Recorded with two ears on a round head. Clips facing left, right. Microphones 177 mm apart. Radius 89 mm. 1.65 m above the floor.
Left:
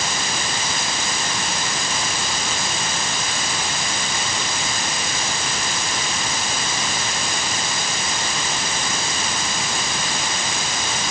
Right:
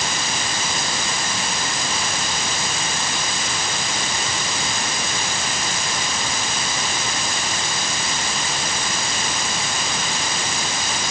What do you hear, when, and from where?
Only background noise.